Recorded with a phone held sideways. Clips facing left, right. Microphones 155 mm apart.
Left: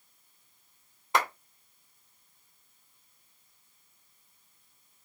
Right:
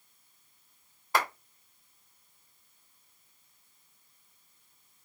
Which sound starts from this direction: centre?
A clap, at 1.1 s.